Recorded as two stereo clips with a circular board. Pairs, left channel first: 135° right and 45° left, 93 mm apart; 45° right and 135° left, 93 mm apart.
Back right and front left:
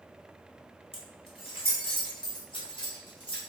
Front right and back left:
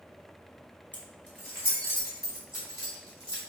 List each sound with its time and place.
0.9 s keys jangling: 120° right, 3 m; by 3.4 s 100° right, 6 m